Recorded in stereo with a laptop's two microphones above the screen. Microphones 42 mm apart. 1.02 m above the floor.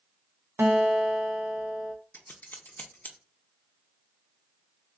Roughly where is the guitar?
Right.